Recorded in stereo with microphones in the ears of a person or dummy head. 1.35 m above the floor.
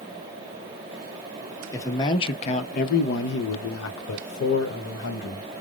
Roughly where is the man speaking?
Centre.